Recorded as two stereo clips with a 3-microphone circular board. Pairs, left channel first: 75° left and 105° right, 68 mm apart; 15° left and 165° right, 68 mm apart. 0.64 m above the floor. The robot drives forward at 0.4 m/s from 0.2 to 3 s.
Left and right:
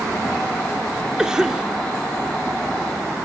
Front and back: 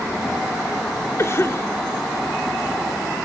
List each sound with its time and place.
1.2 s a cough: 25° right, 1.7 m; by 1.7 s 30° right, 1.5 m